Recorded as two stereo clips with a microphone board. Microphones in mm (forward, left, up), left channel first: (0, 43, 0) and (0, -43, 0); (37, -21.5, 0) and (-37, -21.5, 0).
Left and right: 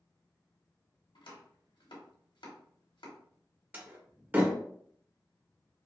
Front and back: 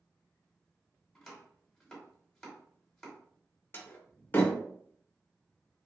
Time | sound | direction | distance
1.1 | chopping | 85° left | 1.1 m
3.7 | a door slam | 35° right | 0.7 m